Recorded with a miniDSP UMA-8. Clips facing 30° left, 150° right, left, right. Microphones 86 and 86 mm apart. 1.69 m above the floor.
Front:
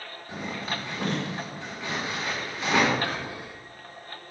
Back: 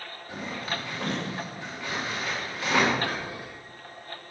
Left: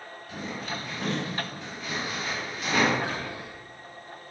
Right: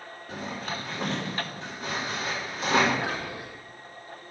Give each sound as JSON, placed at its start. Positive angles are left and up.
{"t": 0.3, "sound": "a zipper", "azimuth_deg": -40, "distance_m": 5.0}
{"t": 3.0, "sound": "whispering", "azimuth_deg": -10, "distance_m": 3.0}